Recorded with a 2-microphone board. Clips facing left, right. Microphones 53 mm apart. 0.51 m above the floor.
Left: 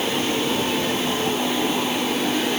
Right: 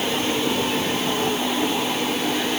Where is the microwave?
I don't hear a microwave.